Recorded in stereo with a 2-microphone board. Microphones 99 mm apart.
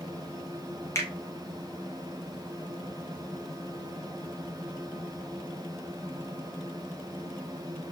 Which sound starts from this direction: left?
A finger snap, at 0.9 s.